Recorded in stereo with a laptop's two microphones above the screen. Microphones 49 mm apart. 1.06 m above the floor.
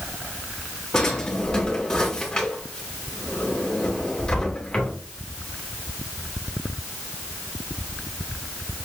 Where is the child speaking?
I don't hear a child speaking.